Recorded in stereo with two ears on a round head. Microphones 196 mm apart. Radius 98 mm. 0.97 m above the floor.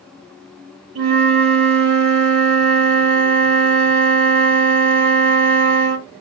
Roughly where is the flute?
Right.